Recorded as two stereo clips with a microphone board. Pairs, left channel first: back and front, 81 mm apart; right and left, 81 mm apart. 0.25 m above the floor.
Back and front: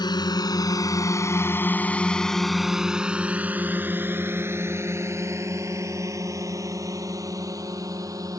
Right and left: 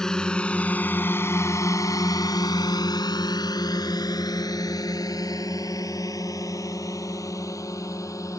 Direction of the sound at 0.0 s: 170° right.